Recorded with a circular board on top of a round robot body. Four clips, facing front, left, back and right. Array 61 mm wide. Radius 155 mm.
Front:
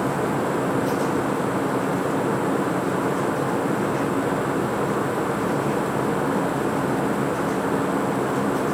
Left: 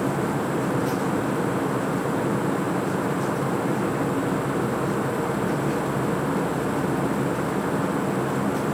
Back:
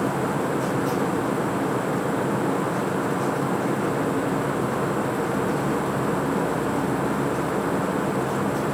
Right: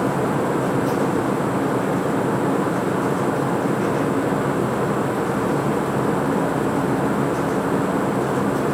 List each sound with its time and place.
Only background noise.